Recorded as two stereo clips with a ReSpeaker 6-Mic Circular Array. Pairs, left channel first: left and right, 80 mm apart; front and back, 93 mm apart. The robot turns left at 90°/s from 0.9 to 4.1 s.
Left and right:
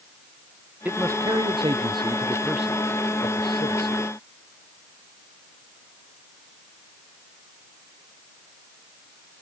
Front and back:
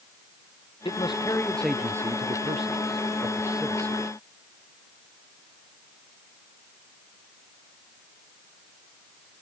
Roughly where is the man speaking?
Ahead.